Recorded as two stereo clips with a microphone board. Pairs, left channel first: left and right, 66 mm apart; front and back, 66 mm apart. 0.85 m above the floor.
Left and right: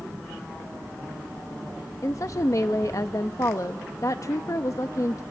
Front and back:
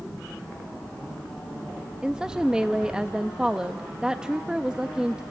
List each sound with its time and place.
2.0 s a woman speaking: 105° left, 0.8 m